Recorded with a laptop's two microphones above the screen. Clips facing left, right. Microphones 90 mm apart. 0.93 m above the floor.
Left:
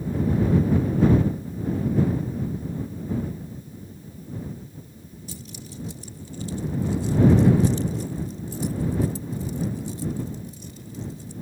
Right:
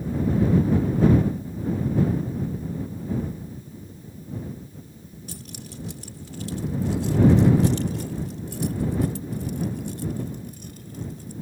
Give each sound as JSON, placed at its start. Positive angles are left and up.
{"t": 5.3, "sound": "keys jangling", "side_deg": -60}